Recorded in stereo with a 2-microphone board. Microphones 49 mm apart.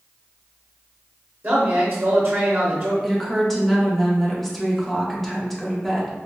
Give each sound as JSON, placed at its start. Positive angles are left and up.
{"t": 1.4, "sound": "a man speaking", "side_deg": -40, "distance_m": 1.1}
{"t": 3.0, "sound": "a woman speaking", "side_deg": 5, "distance_m": 0.7}